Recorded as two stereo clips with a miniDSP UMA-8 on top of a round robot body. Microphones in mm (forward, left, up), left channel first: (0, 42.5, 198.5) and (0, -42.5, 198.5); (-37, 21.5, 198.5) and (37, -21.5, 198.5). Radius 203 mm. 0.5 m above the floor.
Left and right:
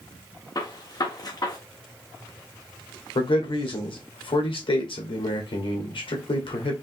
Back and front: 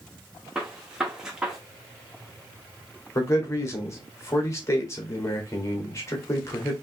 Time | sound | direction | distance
0.6 | a gunshot | 50° left | 1.7 m
3.1 | a man speaking | 95° left | 2 m